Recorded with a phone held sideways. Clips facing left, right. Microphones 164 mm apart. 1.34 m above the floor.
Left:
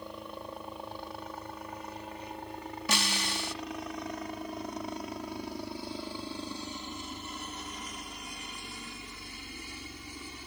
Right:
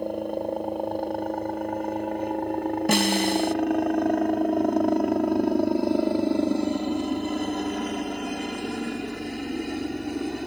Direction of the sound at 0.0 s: 55° right (ahead or behind).